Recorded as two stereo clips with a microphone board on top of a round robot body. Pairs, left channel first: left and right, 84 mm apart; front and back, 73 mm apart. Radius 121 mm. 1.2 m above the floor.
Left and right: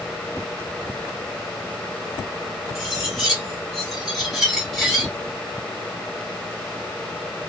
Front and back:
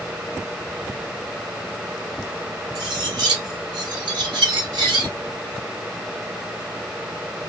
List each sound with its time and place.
2.8 s cutlery clinking: 175° right, 0.6 m